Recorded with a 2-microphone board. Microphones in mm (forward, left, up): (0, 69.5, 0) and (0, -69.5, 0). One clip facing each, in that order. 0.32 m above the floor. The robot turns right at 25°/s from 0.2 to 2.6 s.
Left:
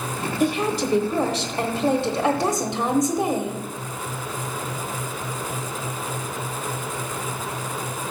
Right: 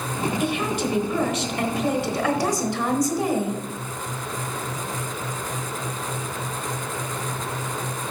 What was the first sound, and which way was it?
A woman speaking, 85° left.